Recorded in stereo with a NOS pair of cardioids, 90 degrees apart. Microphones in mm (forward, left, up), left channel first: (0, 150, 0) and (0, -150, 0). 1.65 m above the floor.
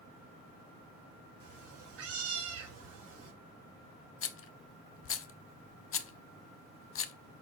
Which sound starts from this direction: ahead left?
A rattle, at 4.2 s.